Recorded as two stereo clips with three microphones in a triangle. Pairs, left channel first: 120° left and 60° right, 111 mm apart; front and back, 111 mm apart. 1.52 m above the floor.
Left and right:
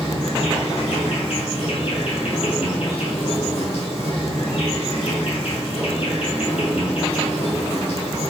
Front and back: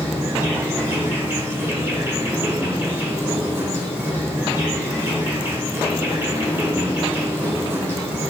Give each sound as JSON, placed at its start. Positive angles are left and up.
{"t": 0.0, "sound": "an insect", "azimuth_deg": 115, "distance_m": 2.0}